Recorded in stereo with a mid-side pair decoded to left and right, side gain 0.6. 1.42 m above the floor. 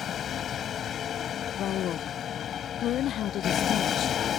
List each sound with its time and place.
0.0 s a vehicle: 45° left
1.6 s a woman speaking: 55° left